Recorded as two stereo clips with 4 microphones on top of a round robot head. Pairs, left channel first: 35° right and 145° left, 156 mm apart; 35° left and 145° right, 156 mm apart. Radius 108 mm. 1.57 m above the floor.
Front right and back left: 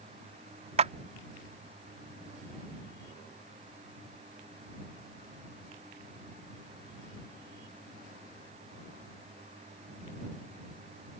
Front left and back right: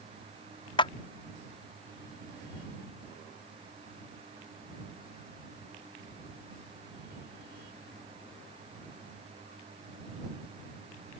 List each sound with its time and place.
0.8 s a clap: 95° left